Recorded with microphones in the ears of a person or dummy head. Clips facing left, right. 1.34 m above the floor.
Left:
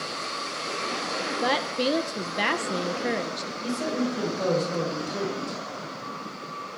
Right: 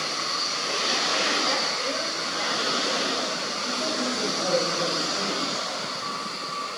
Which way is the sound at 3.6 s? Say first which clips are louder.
Left 3 dB; 65° left (ahead or behind).